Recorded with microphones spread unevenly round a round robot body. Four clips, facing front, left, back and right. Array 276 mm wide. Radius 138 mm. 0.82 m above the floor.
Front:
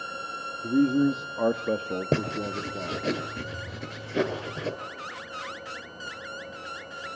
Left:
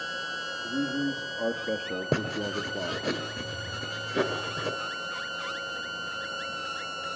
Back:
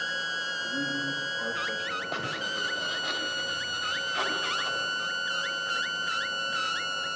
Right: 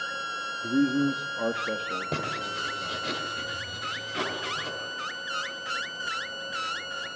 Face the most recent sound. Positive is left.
turn(degrees=30)